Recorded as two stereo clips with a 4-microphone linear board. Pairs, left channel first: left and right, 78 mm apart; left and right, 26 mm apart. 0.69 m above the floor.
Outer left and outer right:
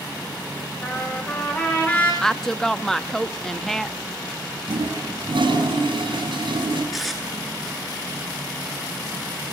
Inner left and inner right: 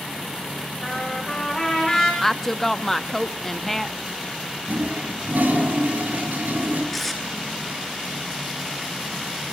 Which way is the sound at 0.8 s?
15° left (ahead or behind).